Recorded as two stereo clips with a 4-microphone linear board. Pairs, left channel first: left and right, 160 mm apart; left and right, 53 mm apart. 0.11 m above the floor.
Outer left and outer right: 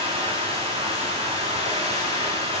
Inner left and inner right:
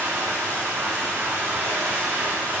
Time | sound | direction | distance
0.0 | running water | 35° right (ahead or behind) | 7.5 m